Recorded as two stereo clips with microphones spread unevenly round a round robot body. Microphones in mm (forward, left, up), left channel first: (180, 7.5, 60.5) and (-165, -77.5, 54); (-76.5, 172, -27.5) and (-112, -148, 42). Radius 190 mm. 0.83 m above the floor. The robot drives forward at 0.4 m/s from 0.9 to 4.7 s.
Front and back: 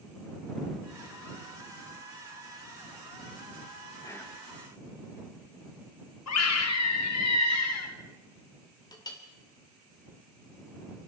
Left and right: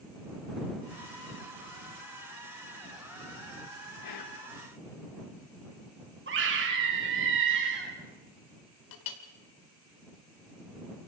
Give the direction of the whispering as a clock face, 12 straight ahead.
9 o'clock.